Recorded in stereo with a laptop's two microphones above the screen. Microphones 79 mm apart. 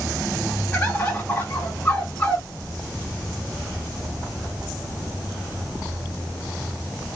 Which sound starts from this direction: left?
A bird, at 0.7 s.